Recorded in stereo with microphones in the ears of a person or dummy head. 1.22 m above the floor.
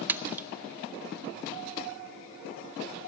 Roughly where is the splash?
Centre.